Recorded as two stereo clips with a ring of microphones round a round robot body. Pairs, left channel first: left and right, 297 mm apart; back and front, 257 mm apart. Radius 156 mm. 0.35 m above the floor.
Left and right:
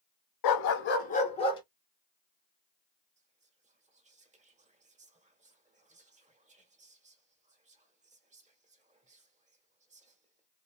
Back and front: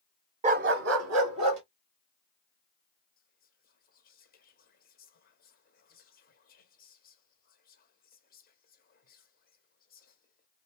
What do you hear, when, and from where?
0.4 s a dog barking: 70° left, 0.7 m; by 1.6 s 15° left, 2 m
3.2 s whispering: 145° right, 1.5 m